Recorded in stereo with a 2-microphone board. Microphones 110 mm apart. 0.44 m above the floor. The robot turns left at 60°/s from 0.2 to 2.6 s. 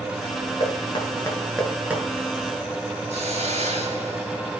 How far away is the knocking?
About 5 m.